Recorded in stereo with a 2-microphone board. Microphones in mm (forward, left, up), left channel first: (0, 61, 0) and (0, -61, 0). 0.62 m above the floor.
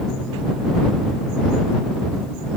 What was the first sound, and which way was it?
Only background noise.